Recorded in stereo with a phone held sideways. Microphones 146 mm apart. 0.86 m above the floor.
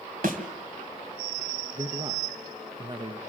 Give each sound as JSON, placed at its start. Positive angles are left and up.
{"t": 0.2, "sound": "a thud", "side_deg": -70, "distance_m": 2.5}
{"t": 1.8, "sound": "a man speaking", "side_deg": -30, "distance_m": 0.7}